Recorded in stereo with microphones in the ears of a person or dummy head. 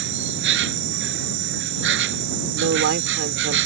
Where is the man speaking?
70° right (ahead or behind).